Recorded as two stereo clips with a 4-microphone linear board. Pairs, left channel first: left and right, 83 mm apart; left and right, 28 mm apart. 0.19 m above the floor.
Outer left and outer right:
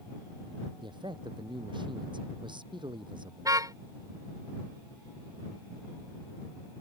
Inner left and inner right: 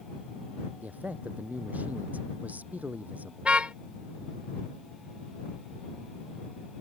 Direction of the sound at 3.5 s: 45° right (ahead or behind).